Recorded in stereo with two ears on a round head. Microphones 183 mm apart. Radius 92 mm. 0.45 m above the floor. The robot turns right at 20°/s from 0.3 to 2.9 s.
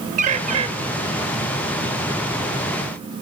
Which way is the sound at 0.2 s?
35° right (ahead or behind).